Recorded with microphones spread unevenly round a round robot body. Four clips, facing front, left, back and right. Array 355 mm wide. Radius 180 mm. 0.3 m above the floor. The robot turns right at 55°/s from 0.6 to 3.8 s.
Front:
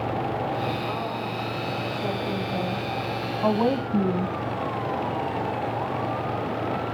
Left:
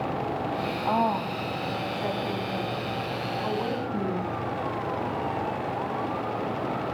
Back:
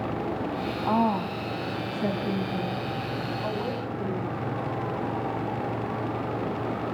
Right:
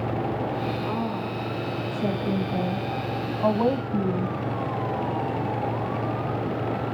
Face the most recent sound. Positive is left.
turn(degrees=-25)